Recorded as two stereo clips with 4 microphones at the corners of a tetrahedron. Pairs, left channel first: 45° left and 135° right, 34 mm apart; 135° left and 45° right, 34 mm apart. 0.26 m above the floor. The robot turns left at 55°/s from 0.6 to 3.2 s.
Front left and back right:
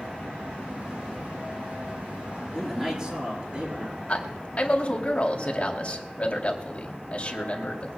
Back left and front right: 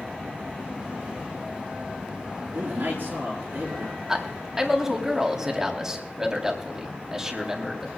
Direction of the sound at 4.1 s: 20° left.